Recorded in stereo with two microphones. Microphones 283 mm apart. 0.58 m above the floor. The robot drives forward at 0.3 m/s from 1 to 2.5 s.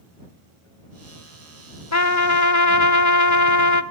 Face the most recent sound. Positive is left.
turn(degrees=80)